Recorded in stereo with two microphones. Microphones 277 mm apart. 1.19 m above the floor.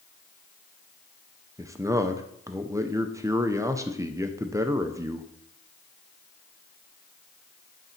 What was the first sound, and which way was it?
A man speaking, 10° right (ahead or behind).